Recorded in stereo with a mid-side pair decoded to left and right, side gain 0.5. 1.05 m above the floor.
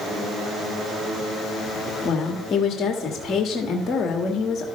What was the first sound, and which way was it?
A woman speaking, 45° left.